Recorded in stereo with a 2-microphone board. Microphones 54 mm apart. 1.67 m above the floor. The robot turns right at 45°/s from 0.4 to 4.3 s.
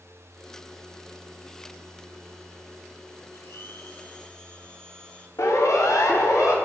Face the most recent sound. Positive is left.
turn(degrees=70)  # may be behind; listen again after turning